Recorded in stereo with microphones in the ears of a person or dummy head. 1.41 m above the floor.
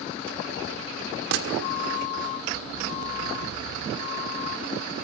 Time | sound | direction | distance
1.3 | a gunshot | 55° right (ahead or behind) | 1.6 m